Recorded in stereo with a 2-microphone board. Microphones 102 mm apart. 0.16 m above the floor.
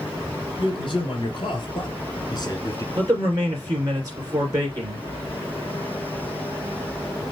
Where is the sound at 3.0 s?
35° right (ahead or behind), 2.5 m.